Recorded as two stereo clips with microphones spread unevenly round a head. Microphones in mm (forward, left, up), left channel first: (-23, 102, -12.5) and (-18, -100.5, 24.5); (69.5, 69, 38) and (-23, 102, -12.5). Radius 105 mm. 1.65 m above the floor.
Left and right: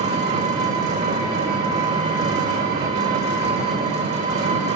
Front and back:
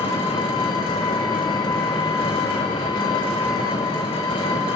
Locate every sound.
0.0 s an engine running: 35° right, 3 m